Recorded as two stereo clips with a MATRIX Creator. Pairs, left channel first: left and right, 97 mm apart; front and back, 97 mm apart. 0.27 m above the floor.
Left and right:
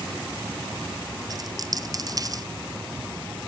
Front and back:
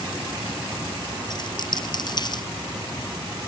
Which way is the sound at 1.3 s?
40° right.